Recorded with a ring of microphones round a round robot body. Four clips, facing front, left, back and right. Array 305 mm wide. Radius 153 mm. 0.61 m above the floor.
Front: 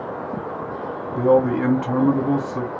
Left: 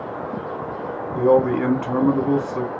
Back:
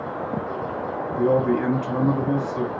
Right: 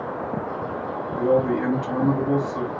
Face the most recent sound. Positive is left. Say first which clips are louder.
# left 4 dB, front 3 dB
turn(degrees=50)